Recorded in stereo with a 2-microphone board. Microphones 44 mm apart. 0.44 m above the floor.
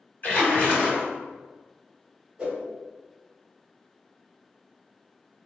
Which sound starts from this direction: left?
A splash, at 0.2 s.